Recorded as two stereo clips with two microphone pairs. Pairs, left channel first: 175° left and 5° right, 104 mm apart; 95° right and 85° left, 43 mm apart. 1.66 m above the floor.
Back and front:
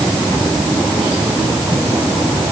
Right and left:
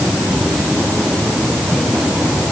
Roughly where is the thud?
I don't hear a thud.